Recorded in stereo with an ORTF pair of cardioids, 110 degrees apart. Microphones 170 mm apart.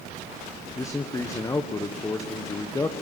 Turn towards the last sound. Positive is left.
turn(degrees=20)